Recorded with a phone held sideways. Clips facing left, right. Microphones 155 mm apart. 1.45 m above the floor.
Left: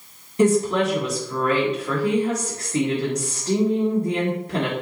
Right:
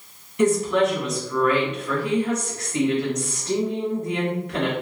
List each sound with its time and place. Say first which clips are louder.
0.4 s a woman speaking: left 1 dB; 35° left (ahead or behind), 1.2 m